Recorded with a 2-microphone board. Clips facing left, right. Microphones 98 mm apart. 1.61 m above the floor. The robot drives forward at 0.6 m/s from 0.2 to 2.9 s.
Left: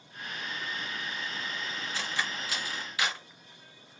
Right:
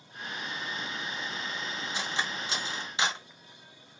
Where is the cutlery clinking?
20° right (ahead or behind), 0.9 m; by 3.2 s 25° right (ahead or behind), 0.7 m.